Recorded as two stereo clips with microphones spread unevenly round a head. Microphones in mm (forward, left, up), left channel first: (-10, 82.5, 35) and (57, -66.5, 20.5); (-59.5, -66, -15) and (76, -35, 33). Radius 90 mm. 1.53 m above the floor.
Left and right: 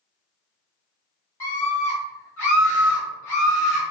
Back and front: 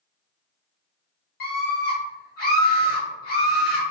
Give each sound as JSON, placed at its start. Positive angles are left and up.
{"t": 1.4, "sound": "a scream", "azimuth_deg": -165, "distance_m": 1.4}